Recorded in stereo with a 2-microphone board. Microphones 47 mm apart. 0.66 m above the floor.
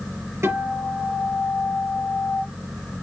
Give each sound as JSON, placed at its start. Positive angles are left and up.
{"t": 0.4, "sound": "a guitar", "side_deg": -70, "distance_m": 4.5}